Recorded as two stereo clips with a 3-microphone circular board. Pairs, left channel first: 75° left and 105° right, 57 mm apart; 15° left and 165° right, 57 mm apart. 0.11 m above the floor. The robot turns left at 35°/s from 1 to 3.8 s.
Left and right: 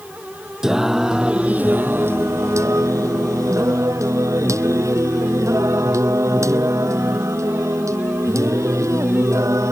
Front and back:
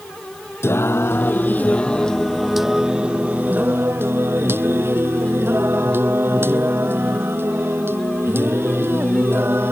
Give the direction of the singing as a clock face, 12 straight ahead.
1 o'clock.